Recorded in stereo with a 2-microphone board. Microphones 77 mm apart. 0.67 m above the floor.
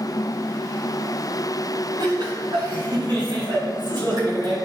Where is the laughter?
65° right (ahead or behind), 4 m; by 4.5 s 60° right (ahead or behind), 6 m.